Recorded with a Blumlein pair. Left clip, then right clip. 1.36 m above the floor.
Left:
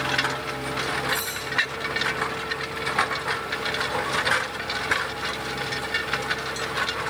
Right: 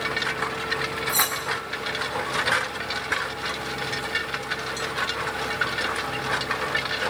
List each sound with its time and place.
1.1 s cutlery clinking: 35° right, 6 m